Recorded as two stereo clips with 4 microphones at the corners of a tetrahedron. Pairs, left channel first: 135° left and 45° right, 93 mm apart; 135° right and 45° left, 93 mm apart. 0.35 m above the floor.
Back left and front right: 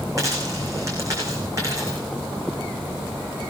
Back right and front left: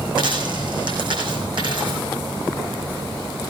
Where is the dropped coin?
10° left, 6.5 m.